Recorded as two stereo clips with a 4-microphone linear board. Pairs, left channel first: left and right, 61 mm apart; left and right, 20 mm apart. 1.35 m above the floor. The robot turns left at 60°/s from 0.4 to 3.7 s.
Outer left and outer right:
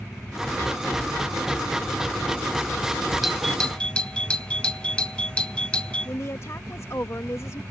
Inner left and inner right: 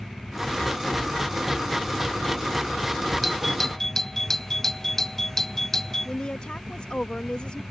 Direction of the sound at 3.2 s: 5° right (ahead or behind).